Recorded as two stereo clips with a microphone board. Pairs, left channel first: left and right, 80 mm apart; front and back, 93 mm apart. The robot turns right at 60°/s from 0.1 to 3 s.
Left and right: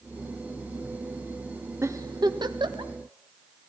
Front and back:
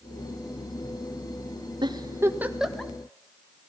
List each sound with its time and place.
1.8 s a giggle: 145° right, 1.7 m; by 2.9 s 75° right, 1.7 m